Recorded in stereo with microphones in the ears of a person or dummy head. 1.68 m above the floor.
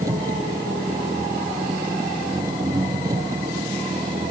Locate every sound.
0.0 s an engine running: 15° right (ahead or behind)